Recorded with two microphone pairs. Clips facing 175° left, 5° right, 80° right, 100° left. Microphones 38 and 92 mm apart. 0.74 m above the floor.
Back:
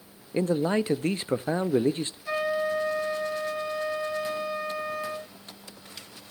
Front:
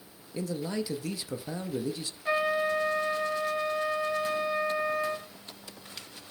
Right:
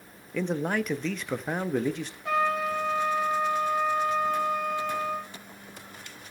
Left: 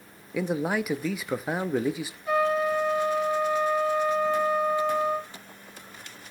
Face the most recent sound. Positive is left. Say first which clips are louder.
# front 1 dB, left 3 dB
turn(degrees=-65)